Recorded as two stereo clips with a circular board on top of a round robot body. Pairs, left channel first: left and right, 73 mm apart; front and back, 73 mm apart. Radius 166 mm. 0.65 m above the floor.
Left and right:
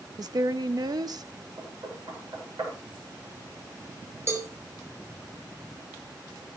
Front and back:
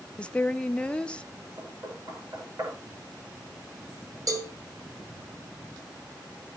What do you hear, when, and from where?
0.2 s a woman speaking: 75° right, 1.3 m
1.6 s knocking: 130° right, 8.5 m
4.3 s a cowbell: 145° right, 4.5 m